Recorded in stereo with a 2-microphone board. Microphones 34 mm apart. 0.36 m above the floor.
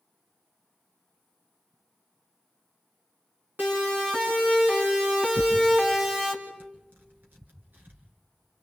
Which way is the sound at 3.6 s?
70° right (ahead or behind).